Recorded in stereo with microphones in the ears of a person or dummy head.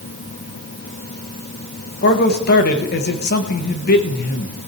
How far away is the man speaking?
About 1.5 m.